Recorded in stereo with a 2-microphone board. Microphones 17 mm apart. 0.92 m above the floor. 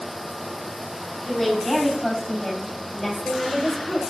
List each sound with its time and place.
1.3 s a woman speaking: centre (ahead or behind), 6.5 m; by 4.0 s 10° right (ahead or behind), 5 m